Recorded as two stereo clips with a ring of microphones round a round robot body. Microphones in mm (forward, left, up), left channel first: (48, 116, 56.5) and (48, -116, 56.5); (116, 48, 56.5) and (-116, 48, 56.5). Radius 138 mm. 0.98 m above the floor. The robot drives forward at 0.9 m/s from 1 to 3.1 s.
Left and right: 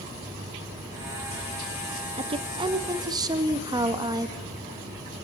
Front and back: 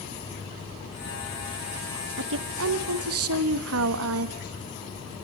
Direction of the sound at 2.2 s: 155° right.